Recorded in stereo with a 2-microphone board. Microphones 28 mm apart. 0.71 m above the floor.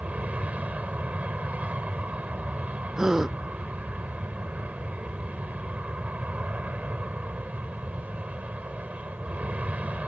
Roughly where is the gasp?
Centre.